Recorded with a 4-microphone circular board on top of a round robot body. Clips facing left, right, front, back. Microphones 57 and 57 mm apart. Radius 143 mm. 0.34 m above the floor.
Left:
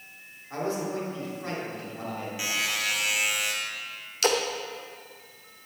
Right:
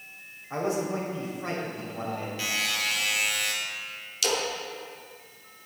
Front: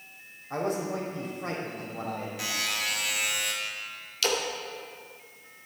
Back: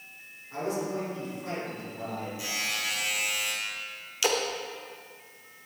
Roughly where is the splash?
Left.